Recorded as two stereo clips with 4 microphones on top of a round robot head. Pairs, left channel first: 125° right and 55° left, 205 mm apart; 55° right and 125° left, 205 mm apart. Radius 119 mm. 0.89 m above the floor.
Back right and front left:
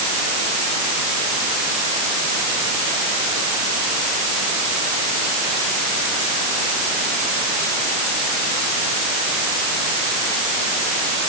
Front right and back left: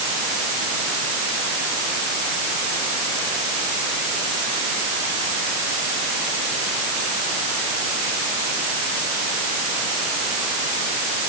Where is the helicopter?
No helicopter in this recording.